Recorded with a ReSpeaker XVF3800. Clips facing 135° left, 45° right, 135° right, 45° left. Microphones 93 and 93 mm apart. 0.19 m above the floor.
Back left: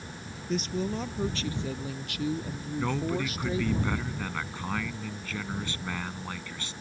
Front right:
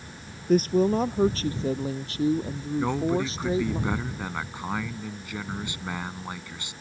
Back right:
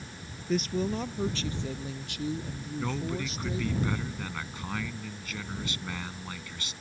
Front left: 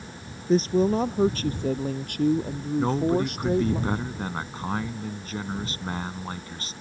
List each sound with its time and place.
0.5 s a woman speaking: 10° right; by 3.8 s 20° left
2.8 s a man speaking: 20° left